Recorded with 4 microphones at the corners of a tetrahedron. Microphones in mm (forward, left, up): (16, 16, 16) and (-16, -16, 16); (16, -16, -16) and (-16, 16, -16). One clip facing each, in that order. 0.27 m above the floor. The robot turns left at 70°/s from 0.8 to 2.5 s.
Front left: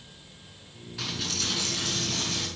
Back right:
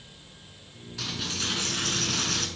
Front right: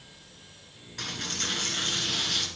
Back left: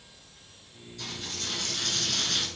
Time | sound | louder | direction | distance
1.0 | a dropped coin | even, front right 4 dB | 40° right | 1.8 m